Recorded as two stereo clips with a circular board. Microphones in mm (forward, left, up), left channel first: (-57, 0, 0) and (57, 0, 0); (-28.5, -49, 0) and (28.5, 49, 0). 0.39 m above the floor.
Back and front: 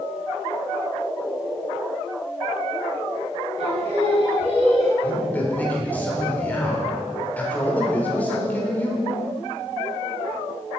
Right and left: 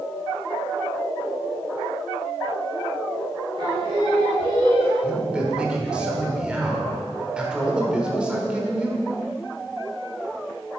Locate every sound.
3.6 s singing: 15° left, 2.5 m
5.0 s a man speaking: 130° left, 1.3 m